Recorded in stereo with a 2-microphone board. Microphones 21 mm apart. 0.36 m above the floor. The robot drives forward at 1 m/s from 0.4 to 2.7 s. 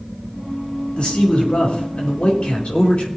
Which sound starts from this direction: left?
A man speaking, at 1.0 s.